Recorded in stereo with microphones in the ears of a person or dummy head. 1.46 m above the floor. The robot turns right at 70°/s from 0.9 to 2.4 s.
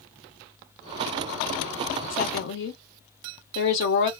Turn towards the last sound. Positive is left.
turn(degrees=70)  # may be behind; listen again after turning